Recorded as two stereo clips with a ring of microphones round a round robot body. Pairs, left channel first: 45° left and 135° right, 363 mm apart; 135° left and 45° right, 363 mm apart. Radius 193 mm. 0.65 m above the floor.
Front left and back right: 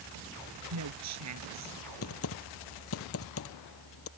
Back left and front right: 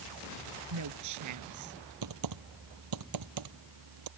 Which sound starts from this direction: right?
A woman speaking, at 0.7 s.